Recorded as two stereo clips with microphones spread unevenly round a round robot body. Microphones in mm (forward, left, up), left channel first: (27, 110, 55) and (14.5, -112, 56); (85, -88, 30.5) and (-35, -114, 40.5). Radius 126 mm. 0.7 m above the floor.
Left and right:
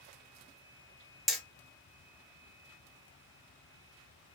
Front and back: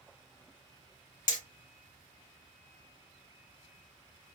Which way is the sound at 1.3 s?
5° right.